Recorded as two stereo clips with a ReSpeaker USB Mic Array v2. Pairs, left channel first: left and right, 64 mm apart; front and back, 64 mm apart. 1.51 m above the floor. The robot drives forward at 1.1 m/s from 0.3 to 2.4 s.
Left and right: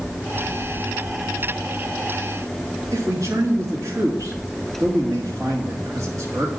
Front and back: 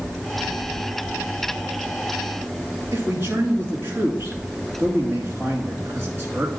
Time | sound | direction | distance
2.9 | a man speaking | 135° right | 2 m